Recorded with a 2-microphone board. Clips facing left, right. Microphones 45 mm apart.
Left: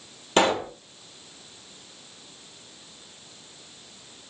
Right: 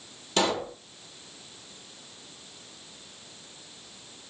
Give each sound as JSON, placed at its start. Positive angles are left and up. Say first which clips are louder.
{"t": 0.4, "sound": "a pop", "louder": "left 5 dB", "side_deg": 35, "distance_m": 0.6}